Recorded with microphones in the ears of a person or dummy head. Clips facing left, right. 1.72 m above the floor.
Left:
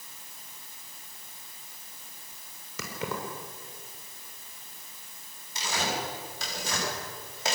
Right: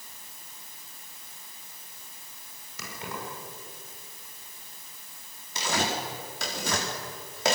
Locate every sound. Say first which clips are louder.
2.8 s keys jangling: left 4 dB; 80° left, 4.5 m
5.5 s tearing paper: right 2 dB; 65° right (ahead or behind), 5.5 m